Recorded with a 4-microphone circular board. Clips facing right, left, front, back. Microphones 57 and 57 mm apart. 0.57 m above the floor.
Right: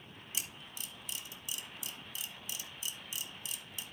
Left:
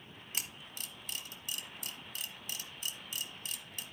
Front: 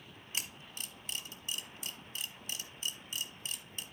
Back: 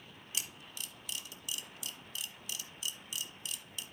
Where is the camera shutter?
50° left, 1.3 m.